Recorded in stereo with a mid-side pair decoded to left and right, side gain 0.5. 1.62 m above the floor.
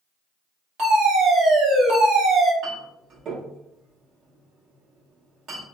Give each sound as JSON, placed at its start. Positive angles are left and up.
{"t": 0.8, "sound": "a fire alarm", "azimuth_deg": -70, "distance_m": 1.9}
{"t": 2.6, "sound": "a clink", "azimuth_deg": -60, "distance_m": 1.5}